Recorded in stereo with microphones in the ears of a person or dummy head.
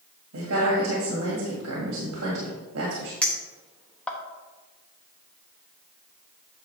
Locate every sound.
0.3 s a woman speaking: 70° right (ahead or behind), 1.9 m
3.2 s a clink: 10° left (ahead or behind), 0.8 m